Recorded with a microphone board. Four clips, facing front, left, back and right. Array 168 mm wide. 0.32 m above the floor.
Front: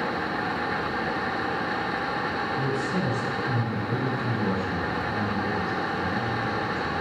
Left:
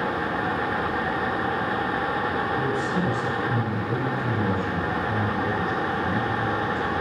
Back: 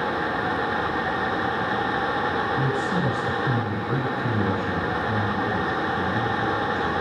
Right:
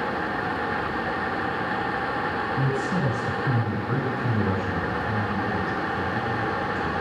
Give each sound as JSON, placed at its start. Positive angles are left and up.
{"t": 2.6, "sound": "a man speaking", "azimuth_deg": -130, "distance_m": 2.5}